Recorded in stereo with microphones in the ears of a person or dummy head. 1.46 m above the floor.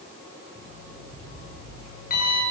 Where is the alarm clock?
45° left (ahead or behind), 10 m.